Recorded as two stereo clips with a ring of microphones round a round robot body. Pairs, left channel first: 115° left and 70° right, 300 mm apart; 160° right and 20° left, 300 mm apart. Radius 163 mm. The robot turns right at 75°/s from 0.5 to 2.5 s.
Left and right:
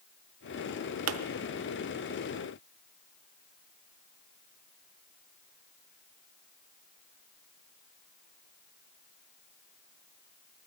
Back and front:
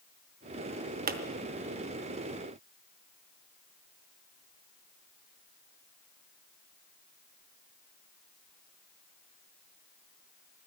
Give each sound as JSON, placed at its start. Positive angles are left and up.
{"t": 1.1, "sound": "a pop", "azimuth_deg": -35, "distance_m": 0.8}